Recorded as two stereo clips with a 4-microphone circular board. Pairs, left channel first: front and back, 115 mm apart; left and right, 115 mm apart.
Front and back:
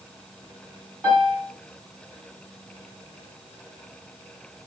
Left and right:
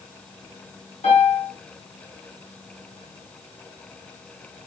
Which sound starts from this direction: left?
A piano, at 1.0 s.